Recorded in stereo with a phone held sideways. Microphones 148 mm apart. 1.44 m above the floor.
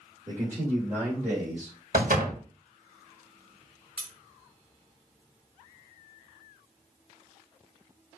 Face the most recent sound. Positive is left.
turn(degrees=-5)  # may be behind; listen again after turning